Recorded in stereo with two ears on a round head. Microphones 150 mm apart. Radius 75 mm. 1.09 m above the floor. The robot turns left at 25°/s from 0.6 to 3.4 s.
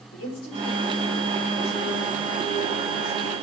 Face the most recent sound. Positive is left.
turn(degrees=20)